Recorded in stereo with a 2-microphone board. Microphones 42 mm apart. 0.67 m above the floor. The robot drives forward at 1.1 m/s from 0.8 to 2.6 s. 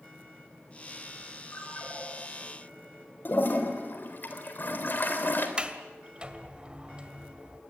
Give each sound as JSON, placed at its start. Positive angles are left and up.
{"t": 1.5, "sound": "a ringtone", "side_deg": 55, "distance_m": 5.5}
{"t": 3.2, "sound": "a toilet flushing", "side_deg": 50, "distance_m": 3.5}
{"t": 5.6, "sound": "a sliding door", "side_deg": -25, "distance_m": 2.0}